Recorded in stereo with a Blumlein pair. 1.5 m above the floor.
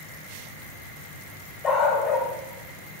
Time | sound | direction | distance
1.6 | a dog barking | 30° left | 3 m